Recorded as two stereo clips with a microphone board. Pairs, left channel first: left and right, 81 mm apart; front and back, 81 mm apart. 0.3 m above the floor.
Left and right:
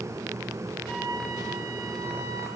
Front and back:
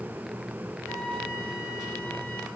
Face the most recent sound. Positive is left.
turn(degrees=-90)